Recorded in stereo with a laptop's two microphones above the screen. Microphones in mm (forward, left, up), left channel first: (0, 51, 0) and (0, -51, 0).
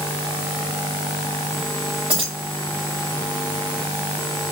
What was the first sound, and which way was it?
Keys jangling, 70° right (ahead or behind).